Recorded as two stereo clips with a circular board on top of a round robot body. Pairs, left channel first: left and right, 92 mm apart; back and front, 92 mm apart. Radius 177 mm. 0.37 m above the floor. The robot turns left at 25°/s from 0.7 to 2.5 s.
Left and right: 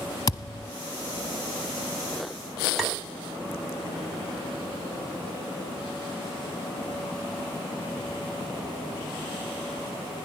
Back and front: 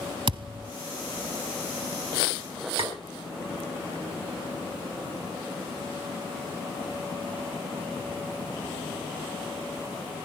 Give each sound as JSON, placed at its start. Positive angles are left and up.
{"t": 0.3, "sound": "a thud", "azimuth_deg": 35, "distance_m": 0.6}
{"t": 2.8, "sound": "tapping", "azimuth_deg": 0, "distance_m": 4.0}